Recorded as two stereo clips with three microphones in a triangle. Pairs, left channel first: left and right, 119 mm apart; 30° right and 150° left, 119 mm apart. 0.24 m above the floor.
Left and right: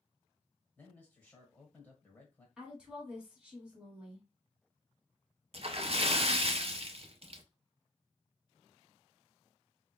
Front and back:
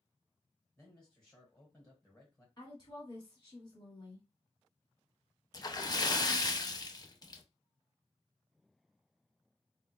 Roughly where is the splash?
Right.